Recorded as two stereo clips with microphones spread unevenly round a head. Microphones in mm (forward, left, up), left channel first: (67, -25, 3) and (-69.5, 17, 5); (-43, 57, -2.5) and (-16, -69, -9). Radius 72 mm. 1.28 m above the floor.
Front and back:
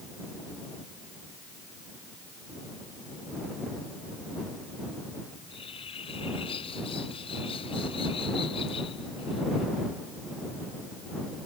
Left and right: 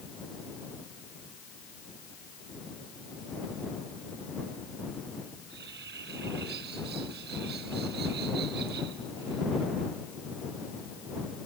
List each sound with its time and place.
5.3 s a bird: 75° right